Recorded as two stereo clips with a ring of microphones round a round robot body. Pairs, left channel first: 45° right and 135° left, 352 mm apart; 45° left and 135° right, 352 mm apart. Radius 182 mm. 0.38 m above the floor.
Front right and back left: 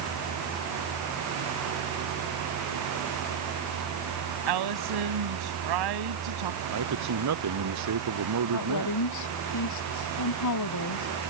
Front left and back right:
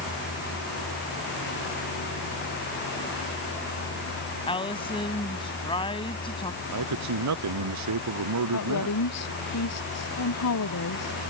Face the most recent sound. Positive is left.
turn(degrees=-5)